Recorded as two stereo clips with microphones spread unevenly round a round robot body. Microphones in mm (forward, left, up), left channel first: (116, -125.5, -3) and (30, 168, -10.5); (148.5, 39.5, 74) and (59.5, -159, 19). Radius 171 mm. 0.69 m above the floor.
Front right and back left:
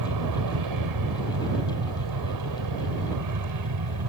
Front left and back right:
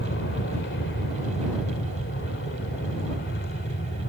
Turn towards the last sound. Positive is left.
turn(degrees=120)